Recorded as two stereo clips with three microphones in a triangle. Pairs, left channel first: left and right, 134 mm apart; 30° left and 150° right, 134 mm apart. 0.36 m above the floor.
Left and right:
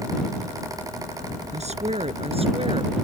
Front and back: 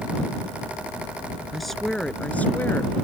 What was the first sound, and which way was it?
A woman speaking, 60° right.